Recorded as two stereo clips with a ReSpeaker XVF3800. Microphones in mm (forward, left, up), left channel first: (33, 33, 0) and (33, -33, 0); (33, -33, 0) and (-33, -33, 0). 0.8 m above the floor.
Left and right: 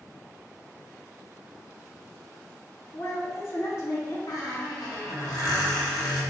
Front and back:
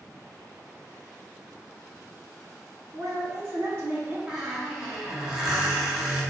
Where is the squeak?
105° left, 0.9 m.